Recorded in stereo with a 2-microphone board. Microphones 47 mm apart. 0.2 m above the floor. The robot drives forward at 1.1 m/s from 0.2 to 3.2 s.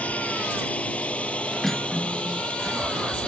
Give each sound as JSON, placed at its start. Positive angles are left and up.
{"t": 0.0, "sound": "a drone", "side_deg": 30}
{"t": 1.6, "sound": "cutlery clinking", "side_deg": 5}